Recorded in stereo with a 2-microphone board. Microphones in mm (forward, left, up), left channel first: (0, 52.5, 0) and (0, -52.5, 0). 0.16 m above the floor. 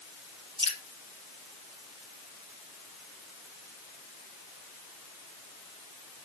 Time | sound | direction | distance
0.6 | dripping | 50° right (ahead or behind) | 3 m